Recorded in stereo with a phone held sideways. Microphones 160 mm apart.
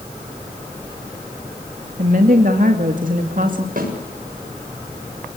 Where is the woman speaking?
55° right (ahead or behind), 2.5 m.